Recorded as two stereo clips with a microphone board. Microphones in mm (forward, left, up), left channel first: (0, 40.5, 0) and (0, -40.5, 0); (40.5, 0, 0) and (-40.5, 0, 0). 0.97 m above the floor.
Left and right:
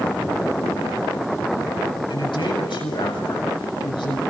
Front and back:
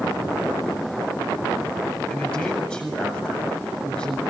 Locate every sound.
2.1 s a man speaking: 80° left, 7.5 m